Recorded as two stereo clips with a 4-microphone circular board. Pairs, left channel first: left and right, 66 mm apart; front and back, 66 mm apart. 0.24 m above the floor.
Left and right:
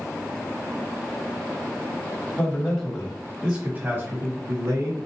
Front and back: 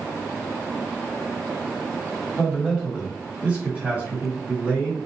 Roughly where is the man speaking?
Behind left.